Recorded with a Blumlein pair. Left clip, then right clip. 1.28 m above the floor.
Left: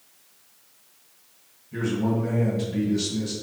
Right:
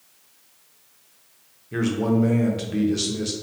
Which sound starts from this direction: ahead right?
A man speaking, at 1.7 s.